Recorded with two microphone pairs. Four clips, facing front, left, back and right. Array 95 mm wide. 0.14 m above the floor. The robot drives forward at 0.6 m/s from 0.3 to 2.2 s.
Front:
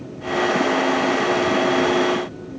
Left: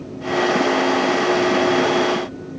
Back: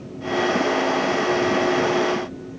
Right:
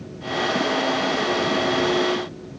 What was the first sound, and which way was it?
Only background noise.